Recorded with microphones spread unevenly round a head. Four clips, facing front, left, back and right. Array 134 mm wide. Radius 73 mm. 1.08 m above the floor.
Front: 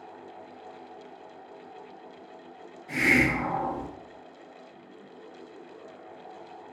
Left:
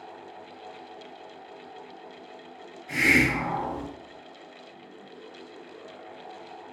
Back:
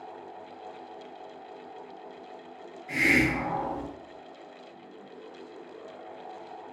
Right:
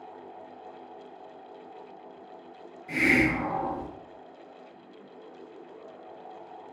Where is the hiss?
90° right, 1.7 m.